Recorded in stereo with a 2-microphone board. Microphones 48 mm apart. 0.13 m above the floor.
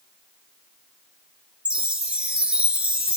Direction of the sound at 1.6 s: 25° right (ahead or behind).